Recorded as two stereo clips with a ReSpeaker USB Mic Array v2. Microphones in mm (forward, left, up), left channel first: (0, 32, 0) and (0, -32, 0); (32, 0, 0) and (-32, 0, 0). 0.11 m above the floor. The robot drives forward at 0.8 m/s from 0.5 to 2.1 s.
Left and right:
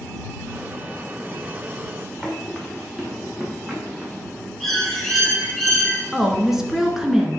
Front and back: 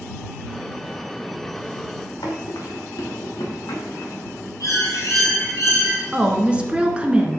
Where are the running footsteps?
10° right, 3 m; by 4.3 s 30° right, 3.5 m.